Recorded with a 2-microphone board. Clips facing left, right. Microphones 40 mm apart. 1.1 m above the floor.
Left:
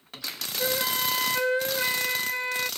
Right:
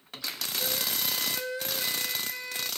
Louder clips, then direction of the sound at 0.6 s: Left 7 dB; 40° left (ahead or behind).